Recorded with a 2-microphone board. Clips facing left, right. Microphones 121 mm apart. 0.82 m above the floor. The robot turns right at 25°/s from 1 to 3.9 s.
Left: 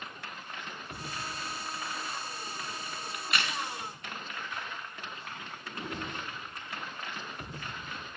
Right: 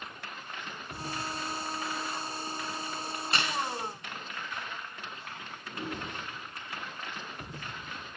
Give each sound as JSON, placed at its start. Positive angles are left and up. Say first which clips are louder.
{"t": 3.1, "sound": "a crack", "louder": "right 1 dB", "side_deg": -35, "distance_m": 1.2}
{"t": 5.7, "sound": "a whoosh", "louder": "right 1 dB", "side_deg": -10, "distance_m": 3.5}